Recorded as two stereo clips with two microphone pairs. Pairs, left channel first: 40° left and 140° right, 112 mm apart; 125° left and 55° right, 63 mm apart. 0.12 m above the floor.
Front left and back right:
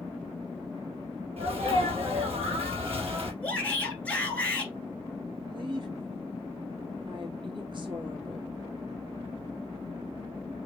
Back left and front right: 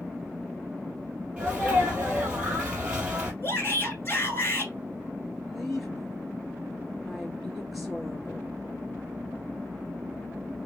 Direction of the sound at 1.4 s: 125° right.